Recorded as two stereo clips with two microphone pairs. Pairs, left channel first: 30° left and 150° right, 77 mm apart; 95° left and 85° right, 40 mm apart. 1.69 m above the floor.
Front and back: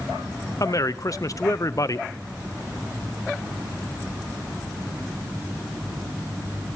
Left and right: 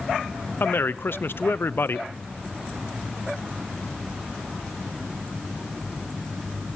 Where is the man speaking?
70° left, 0.8 m.